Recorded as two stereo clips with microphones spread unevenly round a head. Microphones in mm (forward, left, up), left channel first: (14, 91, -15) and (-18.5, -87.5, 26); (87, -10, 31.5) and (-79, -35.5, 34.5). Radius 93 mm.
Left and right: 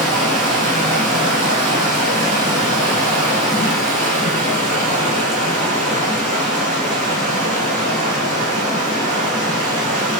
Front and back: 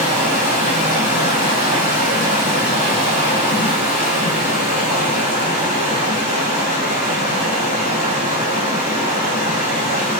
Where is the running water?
5° right, 1.4 m.